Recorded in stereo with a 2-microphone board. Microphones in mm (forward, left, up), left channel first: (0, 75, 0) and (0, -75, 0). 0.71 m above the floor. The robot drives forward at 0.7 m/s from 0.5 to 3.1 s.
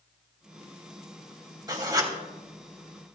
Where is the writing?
25° right (ahead or behind), 3 m.